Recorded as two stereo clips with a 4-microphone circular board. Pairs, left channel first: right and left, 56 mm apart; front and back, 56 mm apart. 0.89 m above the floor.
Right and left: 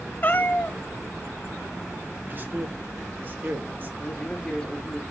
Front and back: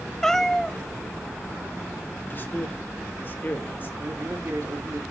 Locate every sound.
0.2 s a cat meowing: 75° right, 0.8 m
2.3 s a man speaking: 45° left, 1.7 m
4.0 s a man speaking: 165° right, 3 m